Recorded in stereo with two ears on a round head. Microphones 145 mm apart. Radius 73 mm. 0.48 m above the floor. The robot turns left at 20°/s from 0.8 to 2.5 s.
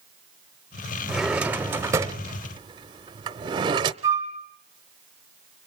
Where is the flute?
20° right (ahead or behind), 3 m.